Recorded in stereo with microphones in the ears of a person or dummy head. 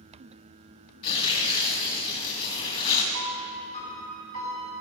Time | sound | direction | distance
1.0 | tearing paper | 30° left (ahead or behind) | 2.5 m
3.1 | a piano | 45° left (ahead or behind) | 3.5 m